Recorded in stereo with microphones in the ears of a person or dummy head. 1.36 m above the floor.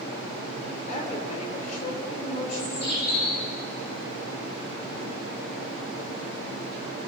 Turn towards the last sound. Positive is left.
turn(degrees=55)  # may be behind; listen again after turning